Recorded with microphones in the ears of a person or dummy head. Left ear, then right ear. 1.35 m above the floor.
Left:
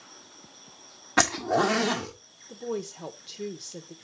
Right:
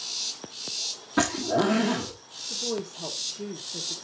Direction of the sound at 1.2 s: 20° left (ahead or behind).